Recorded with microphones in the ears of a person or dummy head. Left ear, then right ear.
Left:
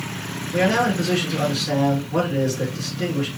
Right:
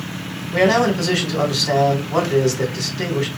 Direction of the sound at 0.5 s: 65° right (ahead or behind).